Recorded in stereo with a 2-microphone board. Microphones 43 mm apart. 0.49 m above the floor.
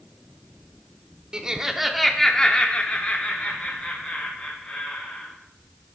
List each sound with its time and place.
1.3 s laughter: 20° right (ahead or behind), 0.8 m; by 5.3 s 45° left (ahead or behind), 2 m